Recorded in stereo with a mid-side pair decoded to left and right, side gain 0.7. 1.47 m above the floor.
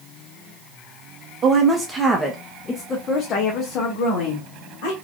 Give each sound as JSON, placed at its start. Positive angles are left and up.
{"t": 1.4, "sound": "a woman speaking", "azimuth_deg": -35, "distance_m": 0.9}